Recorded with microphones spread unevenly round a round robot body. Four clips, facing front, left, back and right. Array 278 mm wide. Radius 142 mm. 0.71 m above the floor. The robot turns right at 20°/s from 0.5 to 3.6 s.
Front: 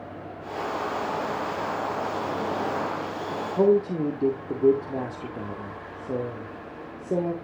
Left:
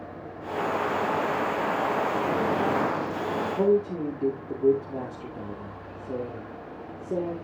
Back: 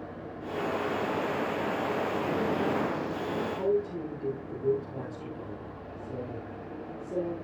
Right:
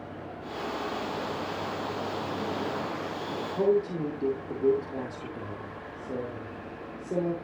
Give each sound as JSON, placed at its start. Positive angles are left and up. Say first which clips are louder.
{"t": 3.6, "sound": "a man speaking", "louder": "left 1 dB, front 11 dB", "azimuth_deg": 10, "distance_m": 2.5}